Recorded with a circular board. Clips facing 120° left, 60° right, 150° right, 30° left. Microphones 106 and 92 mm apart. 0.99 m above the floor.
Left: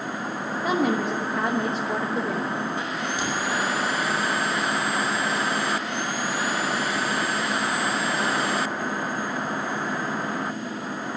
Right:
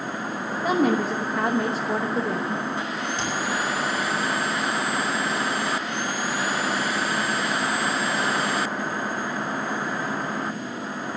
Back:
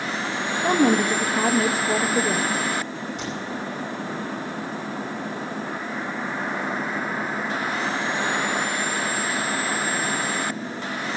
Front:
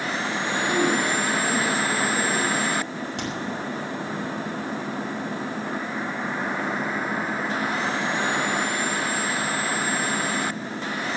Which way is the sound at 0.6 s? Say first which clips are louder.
Right 2 dB, back 5 dB; 145° right.